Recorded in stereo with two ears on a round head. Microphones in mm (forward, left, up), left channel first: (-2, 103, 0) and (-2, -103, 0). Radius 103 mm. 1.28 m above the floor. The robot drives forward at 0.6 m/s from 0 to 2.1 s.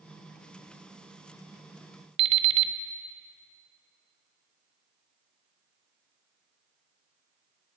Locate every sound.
2.2 s an alarm clock: 20° right (ahead or behind), 0.5 m